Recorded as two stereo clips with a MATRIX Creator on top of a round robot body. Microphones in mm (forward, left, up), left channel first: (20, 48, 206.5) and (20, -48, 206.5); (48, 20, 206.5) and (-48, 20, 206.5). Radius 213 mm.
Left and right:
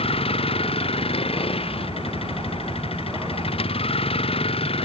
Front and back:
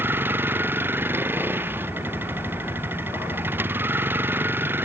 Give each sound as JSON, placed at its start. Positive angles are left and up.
{"t": 0.0, "sound": "a vehicle", "azimuth_deg": 110}